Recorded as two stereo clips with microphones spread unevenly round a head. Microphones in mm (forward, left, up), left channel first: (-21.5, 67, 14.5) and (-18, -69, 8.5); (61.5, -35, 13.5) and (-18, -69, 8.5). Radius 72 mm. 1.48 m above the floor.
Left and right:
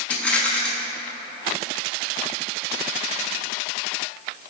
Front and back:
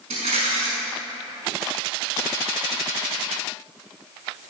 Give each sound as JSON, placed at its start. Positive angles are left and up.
{"t": 0.1, "sound": "a rattle", "azimuth_deg": 170, "distance_m": 5.0}